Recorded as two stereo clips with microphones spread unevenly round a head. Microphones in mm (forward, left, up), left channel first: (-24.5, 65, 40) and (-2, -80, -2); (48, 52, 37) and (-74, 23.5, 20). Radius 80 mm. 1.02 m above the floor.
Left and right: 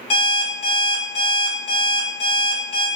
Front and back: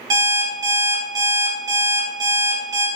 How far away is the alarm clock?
About 1.0 m.